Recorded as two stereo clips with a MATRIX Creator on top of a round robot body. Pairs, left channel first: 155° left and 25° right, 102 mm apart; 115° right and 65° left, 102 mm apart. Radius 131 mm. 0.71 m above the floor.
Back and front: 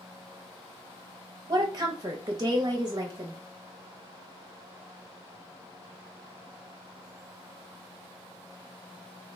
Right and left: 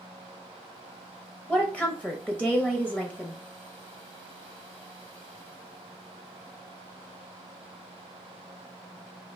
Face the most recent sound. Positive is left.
turn(degrees=-40)